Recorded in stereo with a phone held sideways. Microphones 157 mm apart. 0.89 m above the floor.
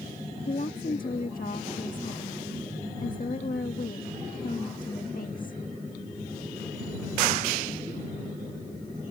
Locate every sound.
0.5 s a woman speaking: 65° left (ahead or behind)